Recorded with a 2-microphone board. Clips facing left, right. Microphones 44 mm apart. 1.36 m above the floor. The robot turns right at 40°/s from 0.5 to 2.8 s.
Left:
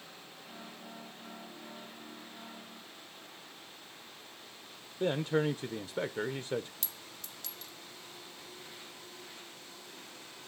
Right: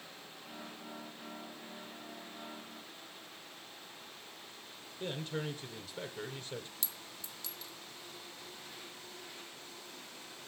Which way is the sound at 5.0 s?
45° left (ahead or behind).